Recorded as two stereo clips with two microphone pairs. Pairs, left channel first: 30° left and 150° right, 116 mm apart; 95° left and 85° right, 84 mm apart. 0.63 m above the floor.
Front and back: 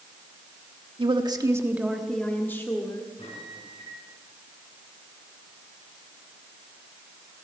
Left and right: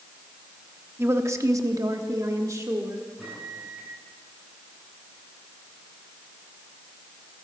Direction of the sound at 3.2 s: Straight ahead.